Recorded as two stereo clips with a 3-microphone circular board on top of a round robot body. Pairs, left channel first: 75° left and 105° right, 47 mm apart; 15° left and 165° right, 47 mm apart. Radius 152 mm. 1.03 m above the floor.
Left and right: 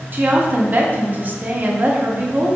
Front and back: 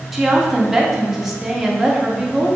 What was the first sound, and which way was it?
A woman speaking, 85° right.